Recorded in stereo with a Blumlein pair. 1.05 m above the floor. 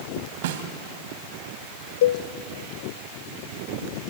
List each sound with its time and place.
0.4 s a snare drum: 55° right, 2 m
2.0 s a cowbell: 55° left, 0.6 m